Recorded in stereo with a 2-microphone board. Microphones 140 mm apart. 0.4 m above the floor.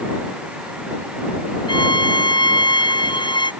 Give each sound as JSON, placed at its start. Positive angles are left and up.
{"t": 1.7, "sound": "a violin", "side_deg": 35}